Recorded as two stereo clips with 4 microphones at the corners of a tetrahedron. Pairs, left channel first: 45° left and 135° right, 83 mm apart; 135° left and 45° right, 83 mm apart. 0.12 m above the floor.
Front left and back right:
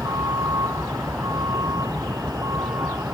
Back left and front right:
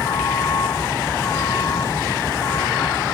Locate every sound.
0.0 s a vehicle: straight behind